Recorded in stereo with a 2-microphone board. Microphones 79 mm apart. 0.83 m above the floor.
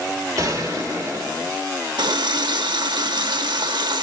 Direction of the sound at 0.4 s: 45° right (ahead or behind).